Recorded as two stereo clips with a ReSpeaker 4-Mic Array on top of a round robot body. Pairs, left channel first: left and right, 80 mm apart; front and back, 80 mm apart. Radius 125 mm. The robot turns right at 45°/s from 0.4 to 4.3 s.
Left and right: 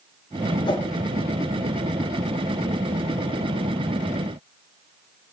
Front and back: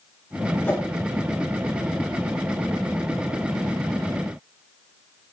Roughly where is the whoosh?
Ahead left.